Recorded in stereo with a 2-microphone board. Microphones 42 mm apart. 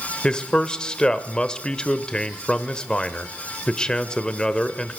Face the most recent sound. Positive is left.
turn(degrees=20)  # may be behind; listen again after turning